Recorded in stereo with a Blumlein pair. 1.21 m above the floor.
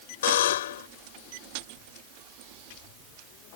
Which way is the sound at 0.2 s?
55° left.